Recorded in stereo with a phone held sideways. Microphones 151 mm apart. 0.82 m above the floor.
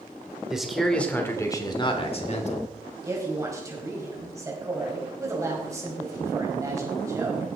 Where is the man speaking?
5° right (ahead or behind), 2.5 m; by 2.7 s 55° left (ahead or behind), 2.5 m.